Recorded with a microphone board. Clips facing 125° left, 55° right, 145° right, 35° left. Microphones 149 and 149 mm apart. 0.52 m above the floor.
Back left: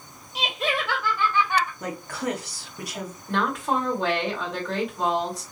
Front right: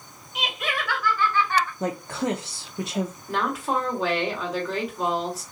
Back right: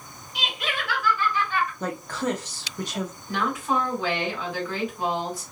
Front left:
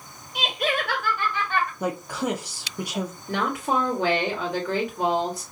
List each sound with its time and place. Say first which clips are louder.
0.3 s laughter: back left 3 dB, front left 6 dB; 70° left, 2 m; by 1.7 s 50° left, 2 m
1.8 s a woman speaking: front right 3 dB, front left 1 dB; 35° right, 0.8 m
3.3 s a woman speaking: back left 3 dB, front left 1 dB; 30° left, 2 m